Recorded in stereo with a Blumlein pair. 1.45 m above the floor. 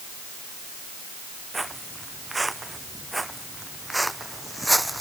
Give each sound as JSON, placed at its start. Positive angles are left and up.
{"t": 1.5, "sound": "footsteps", "azimuth_deg": -10}